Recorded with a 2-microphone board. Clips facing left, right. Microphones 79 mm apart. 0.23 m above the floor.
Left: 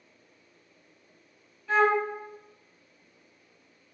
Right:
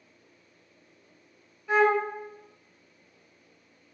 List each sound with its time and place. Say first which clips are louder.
1.7 s a flute: right 1 dB; 15° right (ahead or behind), 0.8 m